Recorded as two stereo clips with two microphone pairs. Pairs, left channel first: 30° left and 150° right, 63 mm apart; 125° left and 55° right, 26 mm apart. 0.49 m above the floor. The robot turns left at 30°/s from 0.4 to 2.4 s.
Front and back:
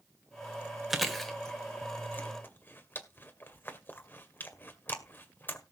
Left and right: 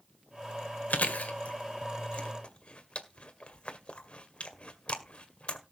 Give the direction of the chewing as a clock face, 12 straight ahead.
8 o'clock.